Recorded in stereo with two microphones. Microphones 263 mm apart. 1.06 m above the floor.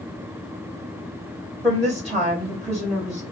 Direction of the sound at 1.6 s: Centre (ahead or behind).